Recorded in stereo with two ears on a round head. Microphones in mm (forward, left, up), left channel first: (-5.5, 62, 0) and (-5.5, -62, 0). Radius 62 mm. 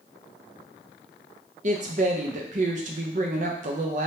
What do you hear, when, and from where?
1.6 s a woman speaking: 60° right (ahead or behind), 0.7 m